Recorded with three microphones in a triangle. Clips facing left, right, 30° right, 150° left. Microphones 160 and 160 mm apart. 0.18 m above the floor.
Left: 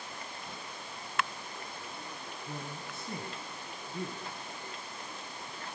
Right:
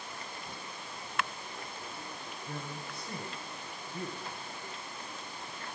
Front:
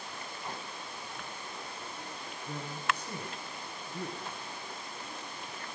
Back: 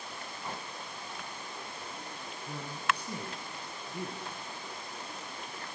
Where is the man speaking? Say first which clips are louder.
Right 1 dB, back 1 dB; 90° left, 1.2 m.